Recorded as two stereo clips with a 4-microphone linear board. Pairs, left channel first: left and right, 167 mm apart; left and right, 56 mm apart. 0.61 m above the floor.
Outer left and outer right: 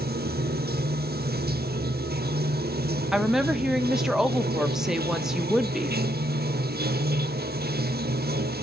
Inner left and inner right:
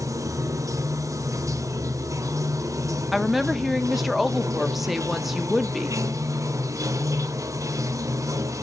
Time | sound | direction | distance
0.0 | running water | 85° right | 0.9 m
3.1 | a woman speaking | 5° right (ahead or behind) | 1.0 m